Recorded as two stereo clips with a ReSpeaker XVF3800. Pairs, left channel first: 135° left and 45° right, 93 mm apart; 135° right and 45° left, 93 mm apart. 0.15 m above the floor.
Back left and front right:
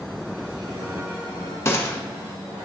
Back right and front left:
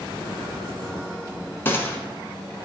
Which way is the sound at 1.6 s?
175° left.